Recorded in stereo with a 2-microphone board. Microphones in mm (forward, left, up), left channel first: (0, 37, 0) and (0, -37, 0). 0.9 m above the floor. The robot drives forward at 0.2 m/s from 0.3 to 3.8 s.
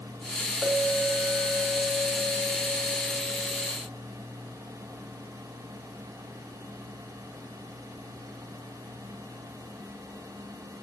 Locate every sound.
0.6 s a clink: 20° right (ahead or behind), 1.1 m; by 3.7 s 40° right (ahead or behind), 0.6 m